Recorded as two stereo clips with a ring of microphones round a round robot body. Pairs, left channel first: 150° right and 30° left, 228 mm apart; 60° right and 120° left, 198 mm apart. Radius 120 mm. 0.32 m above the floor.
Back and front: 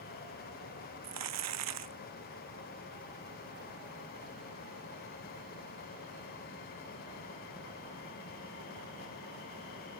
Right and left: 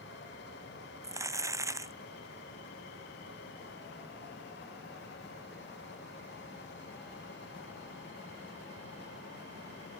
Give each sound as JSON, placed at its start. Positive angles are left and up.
{"t": 1.0, "sound": "crumpling", "azimuth_deg": 45}